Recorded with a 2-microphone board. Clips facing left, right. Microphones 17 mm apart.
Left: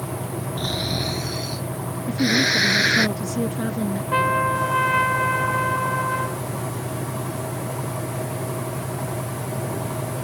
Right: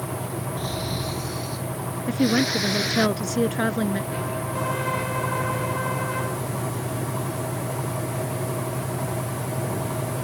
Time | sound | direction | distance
0.6 | snoring | 65° left (ahead or behind) | ?
2.1 | a woman speaking | 60° right (ahead or behind) | ?
4.1 | a trumpet | 70° left (ahead or behind) | ?